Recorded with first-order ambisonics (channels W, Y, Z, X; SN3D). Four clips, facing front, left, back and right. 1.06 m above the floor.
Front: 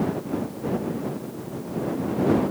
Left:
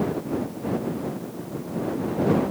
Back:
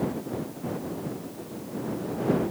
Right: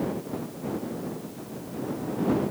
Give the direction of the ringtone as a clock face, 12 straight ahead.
No ringtone in this recording.